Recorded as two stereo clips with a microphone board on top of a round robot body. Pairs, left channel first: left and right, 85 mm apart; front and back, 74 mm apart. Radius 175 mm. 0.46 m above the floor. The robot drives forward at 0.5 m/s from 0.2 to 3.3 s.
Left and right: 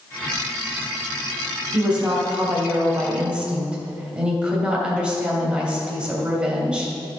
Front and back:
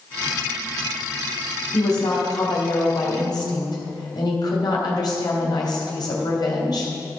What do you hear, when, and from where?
1.7 s a woman speaking: 10° right, 3.5 m; by 6.9 s 15° right, 2.5 m